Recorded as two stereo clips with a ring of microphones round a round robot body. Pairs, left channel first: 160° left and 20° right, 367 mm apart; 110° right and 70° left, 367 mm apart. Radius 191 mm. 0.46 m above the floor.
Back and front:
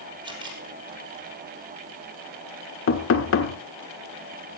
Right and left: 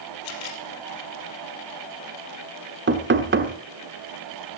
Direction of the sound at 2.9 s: 120° left.